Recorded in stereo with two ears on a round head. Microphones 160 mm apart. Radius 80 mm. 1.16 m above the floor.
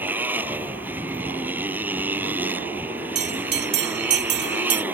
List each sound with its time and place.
0.0 s a motorcycle: 10° right (ahead or behind)
3.1 s a bell: 70° right (ahead or behind)